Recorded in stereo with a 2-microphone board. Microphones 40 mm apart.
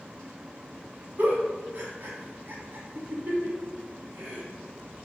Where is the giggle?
55° right (ahead or behind), 1.0 m.